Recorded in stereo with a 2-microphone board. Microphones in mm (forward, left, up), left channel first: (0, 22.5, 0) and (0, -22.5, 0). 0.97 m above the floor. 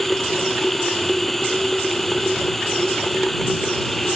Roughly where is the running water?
Centre.